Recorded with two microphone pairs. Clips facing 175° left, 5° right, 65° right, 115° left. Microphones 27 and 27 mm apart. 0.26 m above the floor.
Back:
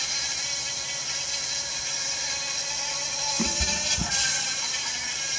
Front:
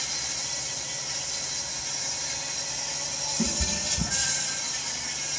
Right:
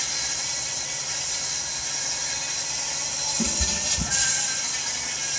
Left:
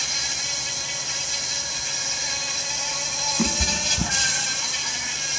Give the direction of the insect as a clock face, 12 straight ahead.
7 o'clock.